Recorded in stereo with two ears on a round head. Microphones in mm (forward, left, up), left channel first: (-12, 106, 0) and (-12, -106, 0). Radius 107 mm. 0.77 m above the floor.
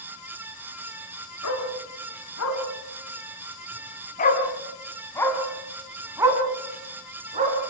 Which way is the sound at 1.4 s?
75° left (ahead or behind).